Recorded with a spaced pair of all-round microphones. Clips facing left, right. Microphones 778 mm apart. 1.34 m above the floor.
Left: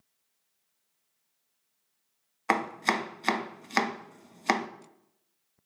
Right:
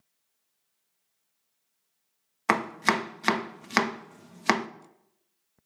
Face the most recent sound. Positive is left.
turn(degrees=-50)  # may be behind; listen again after turning